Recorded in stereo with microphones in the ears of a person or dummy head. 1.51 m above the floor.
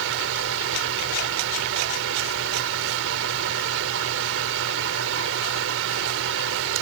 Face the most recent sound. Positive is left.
turn(degrees=-75)  # may be behind; listen again after turning